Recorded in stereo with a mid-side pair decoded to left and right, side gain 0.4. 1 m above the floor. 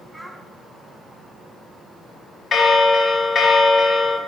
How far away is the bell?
About 1.1 m.